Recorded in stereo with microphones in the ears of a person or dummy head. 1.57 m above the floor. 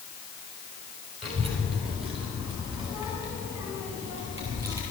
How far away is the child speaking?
About 3.5 m.